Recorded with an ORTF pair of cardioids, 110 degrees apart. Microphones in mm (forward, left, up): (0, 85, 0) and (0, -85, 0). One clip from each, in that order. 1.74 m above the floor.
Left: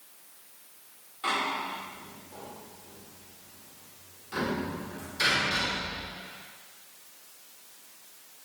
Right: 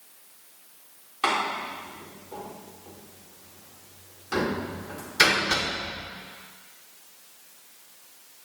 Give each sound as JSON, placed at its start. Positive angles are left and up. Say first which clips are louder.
{"t": 1.2, "sound": "a door slam", "louder": "right 4 dB", "azimuth_deg": -70, "distance_m": 4.5}